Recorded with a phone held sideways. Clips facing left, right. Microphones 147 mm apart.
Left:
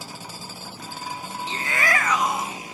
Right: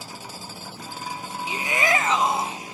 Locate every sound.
1.5 s a shout: 10° right (ahead or behind), 0.6 m; by 2.6 s 30° right (ahead or behind), 1.3 m